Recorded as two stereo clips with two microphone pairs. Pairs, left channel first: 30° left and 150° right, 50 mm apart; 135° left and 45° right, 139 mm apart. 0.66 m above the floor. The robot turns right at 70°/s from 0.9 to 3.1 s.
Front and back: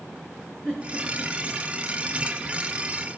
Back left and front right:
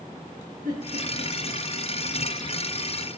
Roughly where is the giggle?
Ahead right.